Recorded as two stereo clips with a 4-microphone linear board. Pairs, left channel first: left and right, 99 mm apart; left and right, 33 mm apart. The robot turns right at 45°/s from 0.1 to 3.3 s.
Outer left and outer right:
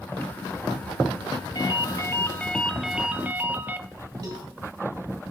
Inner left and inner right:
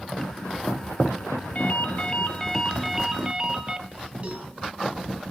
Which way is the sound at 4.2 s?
40° right (ahead or behind).